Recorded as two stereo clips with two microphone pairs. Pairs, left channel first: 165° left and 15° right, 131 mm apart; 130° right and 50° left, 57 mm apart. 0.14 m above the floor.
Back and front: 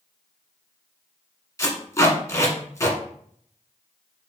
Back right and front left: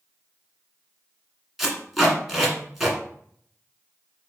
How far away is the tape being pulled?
About 1.3 m.